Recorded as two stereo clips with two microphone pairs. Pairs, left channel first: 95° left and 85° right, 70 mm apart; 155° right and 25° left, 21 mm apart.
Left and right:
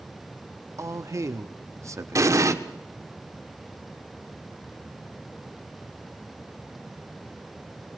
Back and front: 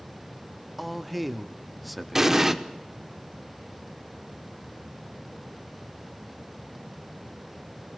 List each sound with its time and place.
0.8 s a man speaking: 65° right, 1.0 m
2.1 s an explosion: 45° right, 1.1 m